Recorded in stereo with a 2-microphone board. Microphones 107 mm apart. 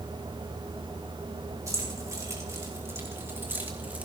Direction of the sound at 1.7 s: 30° right (ahead or behind).